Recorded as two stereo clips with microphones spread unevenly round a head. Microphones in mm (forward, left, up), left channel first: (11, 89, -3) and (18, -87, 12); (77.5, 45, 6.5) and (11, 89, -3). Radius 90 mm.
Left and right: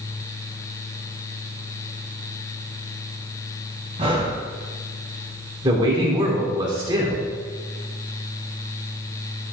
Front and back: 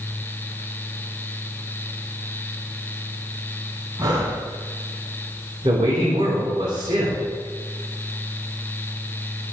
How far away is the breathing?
About 2 m.